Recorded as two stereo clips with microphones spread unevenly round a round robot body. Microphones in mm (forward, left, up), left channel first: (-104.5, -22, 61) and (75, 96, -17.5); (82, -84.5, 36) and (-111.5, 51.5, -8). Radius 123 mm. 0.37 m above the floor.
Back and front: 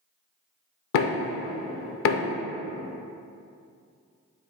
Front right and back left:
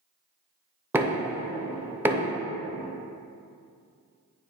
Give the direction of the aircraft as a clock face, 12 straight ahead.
No aircraft in this recording.